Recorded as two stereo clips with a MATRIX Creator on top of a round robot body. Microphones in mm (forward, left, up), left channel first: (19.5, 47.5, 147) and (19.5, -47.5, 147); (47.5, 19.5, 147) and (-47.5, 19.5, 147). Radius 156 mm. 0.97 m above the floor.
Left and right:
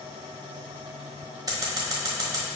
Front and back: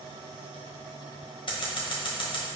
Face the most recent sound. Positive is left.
turn(degrees=-35)